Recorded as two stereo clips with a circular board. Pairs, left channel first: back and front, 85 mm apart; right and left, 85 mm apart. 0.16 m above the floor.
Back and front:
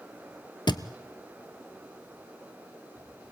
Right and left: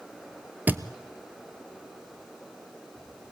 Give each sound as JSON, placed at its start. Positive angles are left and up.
{"t": 0.7, "sound": "a thud", "azimuth_deg": 155, "distance_m": 0.9}